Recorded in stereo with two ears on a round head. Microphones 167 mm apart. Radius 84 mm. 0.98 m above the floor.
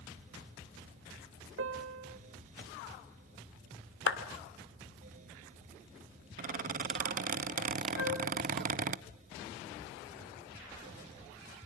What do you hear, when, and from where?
1.6 s a piano: 75° right (ahead or behind), 1.5 m
4.1 s a clap: 60° left (ahead or behind), 2 m
6.4 s a squeak: 45° right (ahead or behind), 0.6 m
8.0 s a flute: 60° left (ahead or behind), 5.5 m